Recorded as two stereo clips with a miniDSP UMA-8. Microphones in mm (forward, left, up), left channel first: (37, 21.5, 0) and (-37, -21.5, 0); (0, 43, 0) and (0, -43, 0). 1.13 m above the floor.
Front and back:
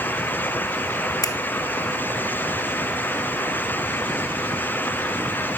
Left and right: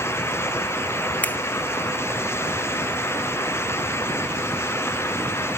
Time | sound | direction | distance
1.2 | a finger snap | 30° left | 0.6 m